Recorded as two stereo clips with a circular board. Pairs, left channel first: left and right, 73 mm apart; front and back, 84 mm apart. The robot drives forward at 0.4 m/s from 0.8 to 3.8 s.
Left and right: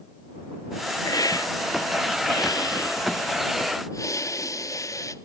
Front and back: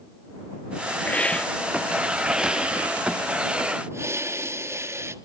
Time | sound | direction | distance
1.1 | a hiss | 70° left | 1.1 m